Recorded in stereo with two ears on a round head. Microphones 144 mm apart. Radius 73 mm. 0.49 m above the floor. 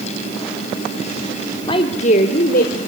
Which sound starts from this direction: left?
A woman speaking, at 1.7 s.